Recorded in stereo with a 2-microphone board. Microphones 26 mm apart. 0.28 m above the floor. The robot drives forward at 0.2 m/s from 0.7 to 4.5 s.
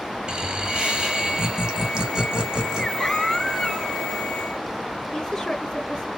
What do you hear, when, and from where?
0.3 s laughter: 40° right (ahead or behind), 1.7 m; by 2.9 s 35° right (ahead or behind), 1.8 m
3.0 s a baby crying: 15° right (ahead or behind), 4 m; by 4.0 s 10° right (ahead or behind), 4 m
5.1 s a woman speaking: 25° left (ahead or behind), 4.5 m